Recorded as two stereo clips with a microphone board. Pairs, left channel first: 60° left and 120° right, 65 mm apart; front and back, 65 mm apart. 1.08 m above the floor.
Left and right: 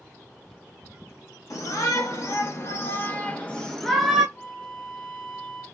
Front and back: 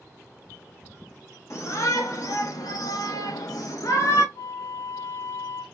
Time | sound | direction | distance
1.5 | a shout | 35° left | 1.5 m
4.3 | a flute | straight ahead | 2 m